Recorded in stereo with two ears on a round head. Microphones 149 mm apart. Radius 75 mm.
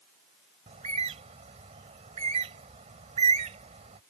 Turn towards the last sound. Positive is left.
turn(degrees=-40)  # may be behind; listen again after turning